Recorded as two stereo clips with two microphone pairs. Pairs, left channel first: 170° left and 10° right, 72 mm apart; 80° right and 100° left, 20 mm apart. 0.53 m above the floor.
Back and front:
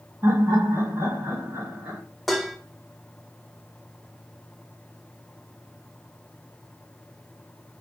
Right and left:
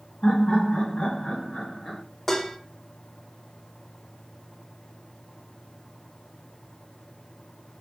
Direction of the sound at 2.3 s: 105° right.